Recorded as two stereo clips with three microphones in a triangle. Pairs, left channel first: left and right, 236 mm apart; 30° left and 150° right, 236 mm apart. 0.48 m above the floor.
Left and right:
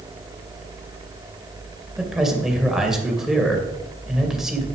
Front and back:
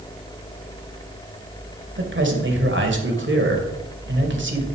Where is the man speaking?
Straight behind, 2 m.